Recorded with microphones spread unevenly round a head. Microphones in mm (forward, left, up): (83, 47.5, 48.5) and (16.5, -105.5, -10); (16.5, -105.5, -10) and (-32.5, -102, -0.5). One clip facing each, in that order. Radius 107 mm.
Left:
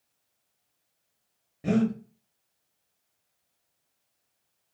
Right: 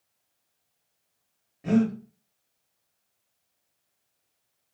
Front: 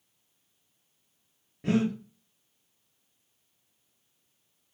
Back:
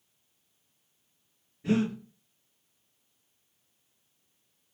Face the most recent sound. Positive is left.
turn(degrees=5)